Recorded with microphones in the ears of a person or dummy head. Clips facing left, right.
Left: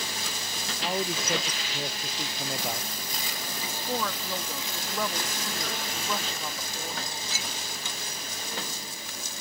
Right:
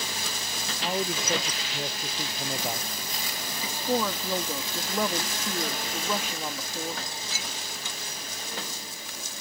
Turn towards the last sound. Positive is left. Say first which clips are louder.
# right 5 dB
turn(degrees=-15)  # may be behind; listen again after turning